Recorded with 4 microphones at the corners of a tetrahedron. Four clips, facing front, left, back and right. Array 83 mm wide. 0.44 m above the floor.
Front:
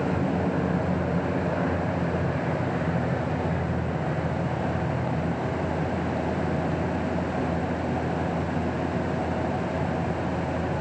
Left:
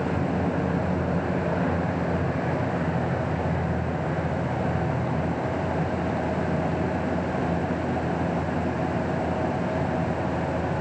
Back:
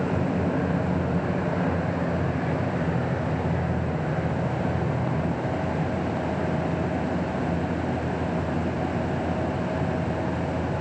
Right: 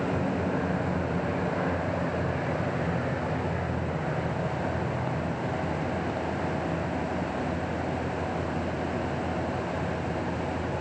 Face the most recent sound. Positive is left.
No sound to turn to.